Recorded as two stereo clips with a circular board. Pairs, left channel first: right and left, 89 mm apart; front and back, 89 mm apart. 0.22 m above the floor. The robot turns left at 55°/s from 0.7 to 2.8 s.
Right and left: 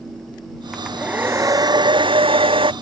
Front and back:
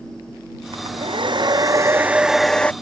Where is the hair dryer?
175° right; by 2.7 s 75° left.